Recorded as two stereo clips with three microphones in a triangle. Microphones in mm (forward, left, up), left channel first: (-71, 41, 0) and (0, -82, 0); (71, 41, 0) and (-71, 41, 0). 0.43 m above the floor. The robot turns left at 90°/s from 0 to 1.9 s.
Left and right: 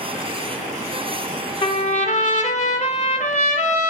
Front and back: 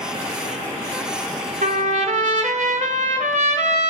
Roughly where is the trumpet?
Behind.